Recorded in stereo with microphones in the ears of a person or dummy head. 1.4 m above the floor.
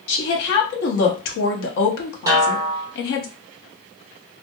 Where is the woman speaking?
75° left (ahead or behind), 0.8 m.